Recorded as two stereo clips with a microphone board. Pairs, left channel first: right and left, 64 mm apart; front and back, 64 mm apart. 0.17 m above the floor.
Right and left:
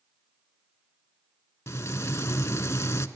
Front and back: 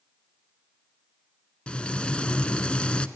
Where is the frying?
70° right, 0.6 m.